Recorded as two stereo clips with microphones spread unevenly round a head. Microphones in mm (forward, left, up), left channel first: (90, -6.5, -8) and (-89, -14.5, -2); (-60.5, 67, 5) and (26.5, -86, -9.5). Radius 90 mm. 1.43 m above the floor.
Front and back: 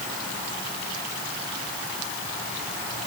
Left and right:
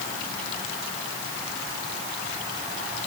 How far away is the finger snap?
No finger snap in this recording.